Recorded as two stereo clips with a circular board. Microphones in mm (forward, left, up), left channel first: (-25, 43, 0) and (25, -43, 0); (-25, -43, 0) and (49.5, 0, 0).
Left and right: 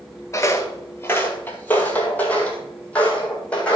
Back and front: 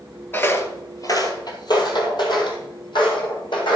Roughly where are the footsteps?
Behind.